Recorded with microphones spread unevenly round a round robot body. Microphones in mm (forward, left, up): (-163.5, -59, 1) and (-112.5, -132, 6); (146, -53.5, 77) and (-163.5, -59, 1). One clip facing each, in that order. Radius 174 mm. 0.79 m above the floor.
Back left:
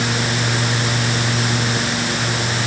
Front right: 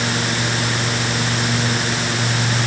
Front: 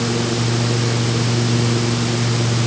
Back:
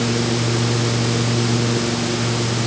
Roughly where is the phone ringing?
I don't hear a phone ringing.